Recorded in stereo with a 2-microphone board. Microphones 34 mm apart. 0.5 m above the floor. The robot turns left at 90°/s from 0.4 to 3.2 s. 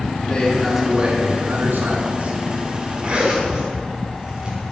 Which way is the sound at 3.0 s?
40° right (ahead or behind).